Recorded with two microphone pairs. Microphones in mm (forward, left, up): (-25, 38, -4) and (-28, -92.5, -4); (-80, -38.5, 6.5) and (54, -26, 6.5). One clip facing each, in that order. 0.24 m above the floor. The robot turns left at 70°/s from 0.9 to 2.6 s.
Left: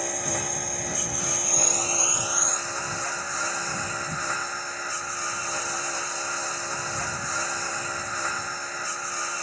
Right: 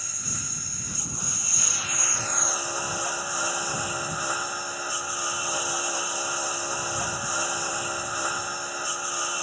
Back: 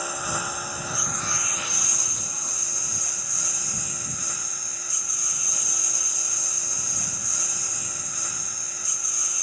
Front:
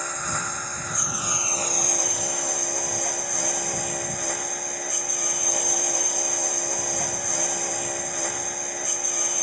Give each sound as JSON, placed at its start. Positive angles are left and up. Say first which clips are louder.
{"t": 0.0, "sound": "a lawn mower", "louder": "left 11 dB, back 1 dB", "azimuth_deg": 105}